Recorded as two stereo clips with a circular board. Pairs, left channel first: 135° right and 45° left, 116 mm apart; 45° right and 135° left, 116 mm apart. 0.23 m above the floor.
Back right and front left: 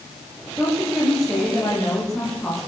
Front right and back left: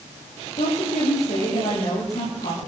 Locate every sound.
0.6 s a woman speaking: 50° right, 7.5 m